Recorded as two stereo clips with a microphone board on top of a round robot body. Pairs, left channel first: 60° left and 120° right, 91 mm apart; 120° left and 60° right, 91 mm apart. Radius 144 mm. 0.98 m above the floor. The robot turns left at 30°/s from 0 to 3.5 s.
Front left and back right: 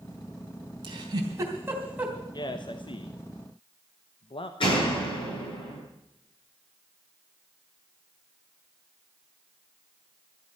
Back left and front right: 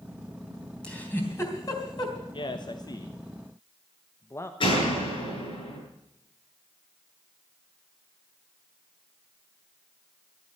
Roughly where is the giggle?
Behind.